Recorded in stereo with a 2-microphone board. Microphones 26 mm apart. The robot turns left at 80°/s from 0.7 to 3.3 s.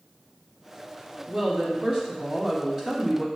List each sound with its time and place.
1.3 s a woman speaking: 45° right, 1.4 m; by 3.3 s 155° left, 1.4 m